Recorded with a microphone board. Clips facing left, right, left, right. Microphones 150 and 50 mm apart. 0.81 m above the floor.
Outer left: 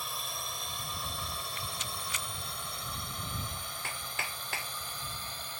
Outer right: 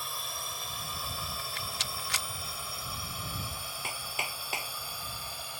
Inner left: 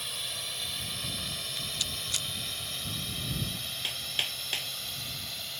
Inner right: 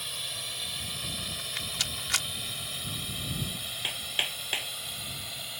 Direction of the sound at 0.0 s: Centre (ahead or behind).